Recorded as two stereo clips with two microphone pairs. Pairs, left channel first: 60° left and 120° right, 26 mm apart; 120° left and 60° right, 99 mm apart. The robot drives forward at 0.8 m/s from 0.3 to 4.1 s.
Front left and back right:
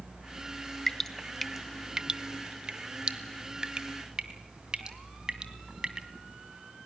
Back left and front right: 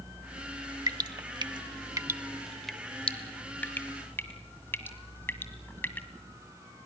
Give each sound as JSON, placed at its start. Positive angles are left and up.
{"t": 0.9, "sound": "dripping", "azimuth_deg": -15, "distance_m": 1.0}